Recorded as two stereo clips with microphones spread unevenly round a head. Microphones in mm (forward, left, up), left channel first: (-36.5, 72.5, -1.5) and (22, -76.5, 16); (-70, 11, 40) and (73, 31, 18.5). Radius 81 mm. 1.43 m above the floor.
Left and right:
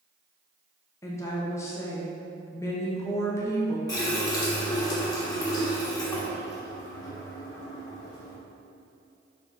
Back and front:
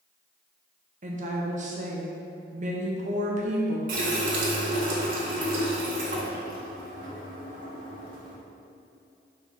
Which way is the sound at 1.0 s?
40° left.